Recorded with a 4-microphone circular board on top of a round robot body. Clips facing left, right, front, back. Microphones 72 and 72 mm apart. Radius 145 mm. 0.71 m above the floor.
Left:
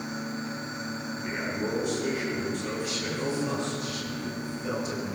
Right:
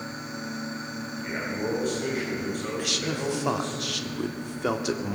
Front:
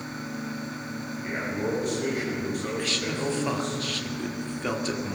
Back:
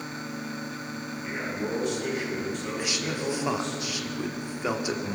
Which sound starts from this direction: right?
A man speaking, at 2.8 s.